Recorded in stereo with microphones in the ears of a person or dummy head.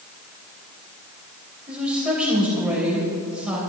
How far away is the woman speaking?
About 5 m.